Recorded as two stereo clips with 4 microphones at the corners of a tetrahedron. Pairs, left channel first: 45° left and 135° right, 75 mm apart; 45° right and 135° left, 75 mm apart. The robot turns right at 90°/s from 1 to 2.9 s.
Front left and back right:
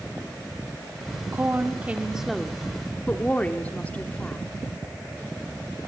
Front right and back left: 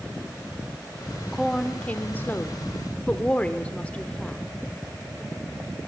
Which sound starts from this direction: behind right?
A woman speaking, at 1.3 s.